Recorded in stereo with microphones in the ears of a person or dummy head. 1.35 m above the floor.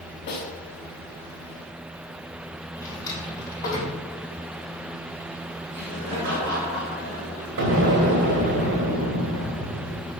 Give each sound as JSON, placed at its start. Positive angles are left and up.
{"t": 0.3, "sound": "a snare drum", "side_deg": 20, "distance_m": 1.2}
{"t": 2.8, "sound": "a drawer", "side_deg": 20, "distance_m": 3.5}
{"t": 5.7, "sound": "laughter", "side_deg": -75, "distance_m": 4.0}
{"t": 7.6, "sound": "an explosion", "side_deg": -50, "distance_m": 1.6}